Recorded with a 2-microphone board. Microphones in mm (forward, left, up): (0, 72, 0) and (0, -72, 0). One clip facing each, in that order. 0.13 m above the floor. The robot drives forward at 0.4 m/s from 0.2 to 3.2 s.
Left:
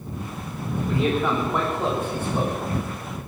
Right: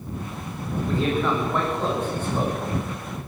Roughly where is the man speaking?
Centre.